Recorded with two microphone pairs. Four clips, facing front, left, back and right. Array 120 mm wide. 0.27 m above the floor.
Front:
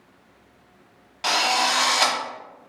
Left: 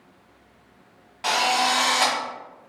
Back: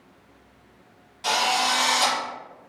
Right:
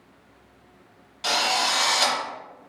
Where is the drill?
35° left, 0.9 m.